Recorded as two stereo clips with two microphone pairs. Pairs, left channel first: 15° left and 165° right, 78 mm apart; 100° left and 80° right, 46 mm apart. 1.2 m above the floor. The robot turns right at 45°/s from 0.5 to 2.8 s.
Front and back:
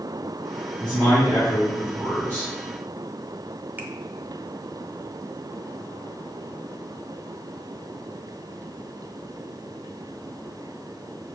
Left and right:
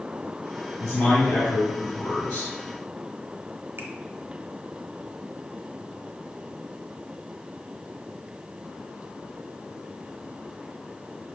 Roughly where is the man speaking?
Left.